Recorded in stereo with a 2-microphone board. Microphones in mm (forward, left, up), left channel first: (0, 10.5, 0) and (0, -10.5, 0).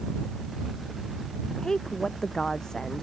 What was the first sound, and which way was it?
A woman speaking, 35° left (ahead or behind).